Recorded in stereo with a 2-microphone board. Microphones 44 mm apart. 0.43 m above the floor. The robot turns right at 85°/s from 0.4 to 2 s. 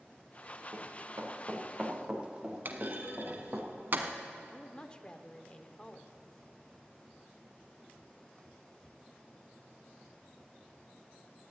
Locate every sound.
0.7 s running footsteps: 65° right (ahead or behind), 4.5 m; by 3.6 s 30° right (ahead or behind), 3.5 m
2.6 s a clunk: 50° right (ahead or behind), 1.2 m
4.5 s a woman speaking: 20° left (ahead or behind), 0.7 m